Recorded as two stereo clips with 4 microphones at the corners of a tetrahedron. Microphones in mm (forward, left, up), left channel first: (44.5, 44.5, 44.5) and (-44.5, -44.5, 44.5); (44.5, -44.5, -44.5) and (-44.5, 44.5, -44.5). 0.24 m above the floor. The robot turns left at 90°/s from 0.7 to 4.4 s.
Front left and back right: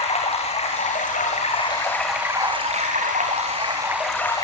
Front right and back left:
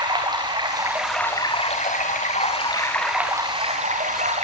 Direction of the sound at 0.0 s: 80° left.